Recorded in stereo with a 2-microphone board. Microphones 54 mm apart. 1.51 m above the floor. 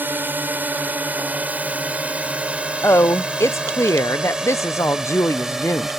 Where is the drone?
35° right (ahead or behind); by 6.0 s 10° right (ahead or behind).